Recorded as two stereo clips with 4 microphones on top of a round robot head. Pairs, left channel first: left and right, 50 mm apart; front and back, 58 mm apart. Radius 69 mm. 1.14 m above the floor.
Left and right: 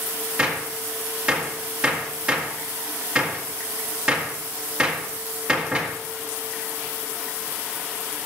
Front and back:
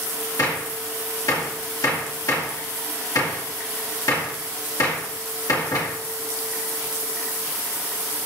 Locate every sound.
0.4 s a gunshot: 20° right, 2 m